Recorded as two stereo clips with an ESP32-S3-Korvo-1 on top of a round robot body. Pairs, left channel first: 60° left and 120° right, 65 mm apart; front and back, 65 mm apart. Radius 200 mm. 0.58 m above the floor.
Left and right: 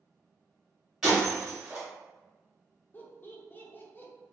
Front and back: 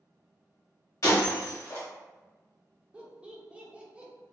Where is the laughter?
110° left, 0.8 m.